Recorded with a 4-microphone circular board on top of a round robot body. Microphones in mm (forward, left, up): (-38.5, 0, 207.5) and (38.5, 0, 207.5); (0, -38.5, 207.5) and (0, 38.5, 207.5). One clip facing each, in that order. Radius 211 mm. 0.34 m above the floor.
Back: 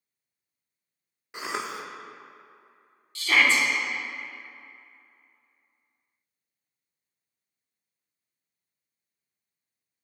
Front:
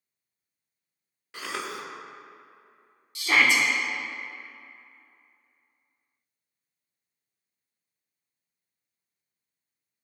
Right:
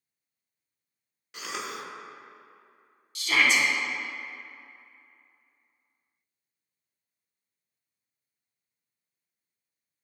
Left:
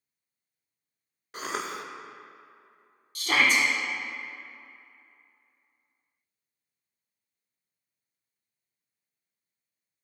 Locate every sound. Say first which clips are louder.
1.3 s a cough: back 2 dB, left 3 dB; 120° left, 1.0 m
3.1 s a shout: even, even; 70° left, 1.8 m